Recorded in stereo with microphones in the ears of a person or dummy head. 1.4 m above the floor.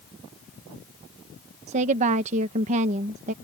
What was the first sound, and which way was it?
A woman speaking, 40° right (ahead or behind).